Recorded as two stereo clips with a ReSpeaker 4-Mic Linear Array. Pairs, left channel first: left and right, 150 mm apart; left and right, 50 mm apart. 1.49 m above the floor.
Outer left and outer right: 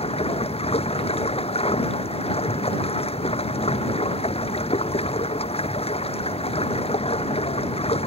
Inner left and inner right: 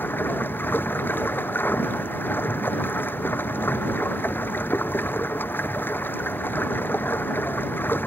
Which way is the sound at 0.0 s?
45° left (ahead or behind).